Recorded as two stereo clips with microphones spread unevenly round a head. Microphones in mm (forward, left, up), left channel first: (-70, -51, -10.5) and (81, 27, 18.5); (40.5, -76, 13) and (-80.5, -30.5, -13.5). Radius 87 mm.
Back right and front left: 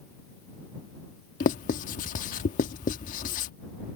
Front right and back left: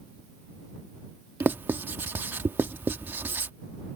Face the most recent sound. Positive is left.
turn(degrees=-120)